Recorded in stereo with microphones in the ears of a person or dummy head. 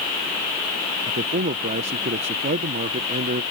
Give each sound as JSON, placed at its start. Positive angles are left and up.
{"t": 1.1, "sound": "a man speaking", "side_deg": -35}